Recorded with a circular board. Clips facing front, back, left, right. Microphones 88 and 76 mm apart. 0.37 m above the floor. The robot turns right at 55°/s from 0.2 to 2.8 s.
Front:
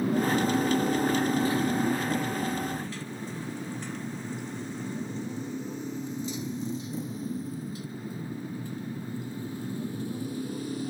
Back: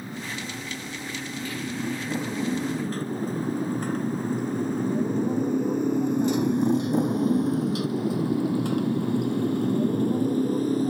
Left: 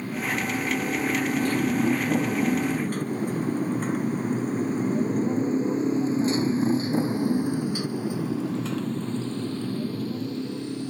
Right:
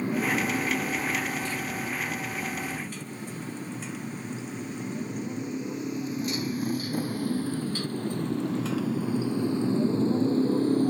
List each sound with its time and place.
0.0 s a motorcycle: 20° right; by 10.9 s 135° right